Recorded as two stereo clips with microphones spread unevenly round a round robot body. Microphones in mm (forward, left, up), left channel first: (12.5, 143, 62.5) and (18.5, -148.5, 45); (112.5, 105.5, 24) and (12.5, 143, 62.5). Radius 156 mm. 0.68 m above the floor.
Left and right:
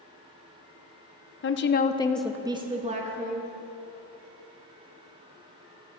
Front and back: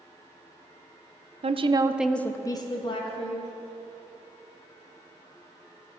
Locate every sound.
1.4 s a woman speaking: 125° left, 0.7 m; by 3.5 s 30° right, 1.5 m